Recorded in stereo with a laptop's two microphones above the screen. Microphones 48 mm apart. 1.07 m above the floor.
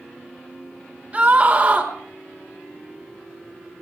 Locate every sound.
1.1 s a scream: 30° right (ahead or behind), 3 m